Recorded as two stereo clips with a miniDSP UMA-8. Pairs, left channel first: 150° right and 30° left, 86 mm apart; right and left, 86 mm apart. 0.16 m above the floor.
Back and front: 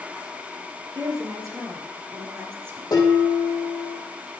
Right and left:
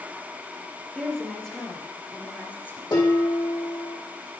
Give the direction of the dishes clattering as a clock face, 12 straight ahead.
4 o'clock.